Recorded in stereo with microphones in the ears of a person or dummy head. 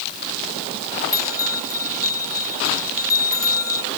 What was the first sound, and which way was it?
A bell, 15° left (ahead or behind).